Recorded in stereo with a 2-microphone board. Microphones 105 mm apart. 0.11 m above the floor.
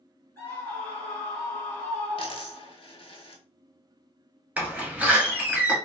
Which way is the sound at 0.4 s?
20° left (ahead or behind).